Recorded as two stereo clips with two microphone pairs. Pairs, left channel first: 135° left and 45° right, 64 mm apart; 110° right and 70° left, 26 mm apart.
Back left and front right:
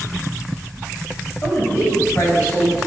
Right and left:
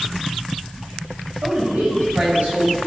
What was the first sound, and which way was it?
A woman speaking, 85° left.